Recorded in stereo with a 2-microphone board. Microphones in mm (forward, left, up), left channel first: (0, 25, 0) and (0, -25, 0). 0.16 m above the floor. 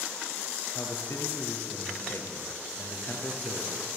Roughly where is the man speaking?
Left.